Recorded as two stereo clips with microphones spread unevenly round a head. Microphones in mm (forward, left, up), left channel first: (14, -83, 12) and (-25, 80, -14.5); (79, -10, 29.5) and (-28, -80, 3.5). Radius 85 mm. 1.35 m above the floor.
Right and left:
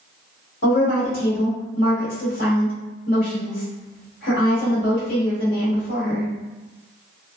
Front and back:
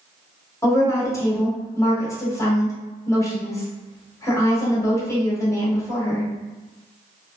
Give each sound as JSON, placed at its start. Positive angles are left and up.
{"t": 0.6, "sound": "a woman speaking", "azimuth_deg": -35, "distance_m": 1.4}